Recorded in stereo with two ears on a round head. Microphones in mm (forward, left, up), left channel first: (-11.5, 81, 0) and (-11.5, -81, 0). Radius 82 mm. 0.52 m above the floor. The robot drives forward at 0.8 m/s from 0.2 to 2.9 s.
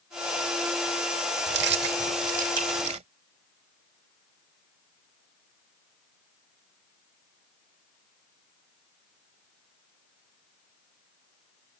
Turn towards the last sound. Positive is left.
turn(degrees=-40)  # may be behind; listen again after turning